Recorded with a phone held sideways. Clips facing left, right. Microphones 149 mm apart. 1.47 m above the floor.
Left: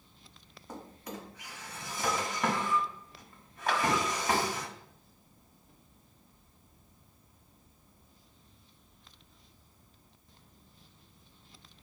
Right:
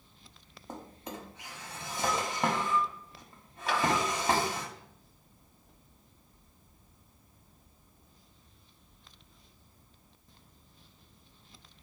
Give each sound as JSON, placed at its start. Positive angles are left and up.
{"t": 0.7, "sound": "a drawer", "side_deg": -25, "distance_m": 1.3}
{"t": 3.7, "sound": "a clap", "side_deg": 55, "distance_m": 1.3}